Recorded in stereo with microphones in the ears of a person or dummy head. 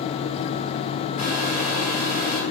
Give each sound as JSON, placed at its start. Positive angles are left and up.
{"t": 1.2, "sound": "a hair dryer", "side_deg": 40, "distance_m": 3.5}